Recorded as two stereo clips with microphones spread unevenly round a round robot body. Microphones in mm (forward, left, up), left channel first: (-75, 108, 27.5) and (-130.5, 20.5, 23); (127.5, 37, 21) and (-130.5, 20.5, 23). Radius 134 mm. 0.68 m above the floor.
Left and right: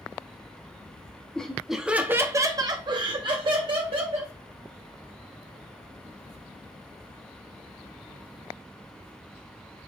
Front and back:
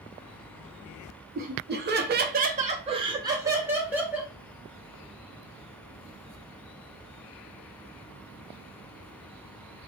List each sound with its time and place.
1.4 s laughter: 140° left, 0.7 m; by 4.3 s 90° right, 1.3 m